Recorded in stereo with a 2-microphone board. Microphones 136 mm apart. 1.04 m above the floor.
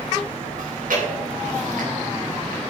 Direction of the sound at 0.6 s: 80° right.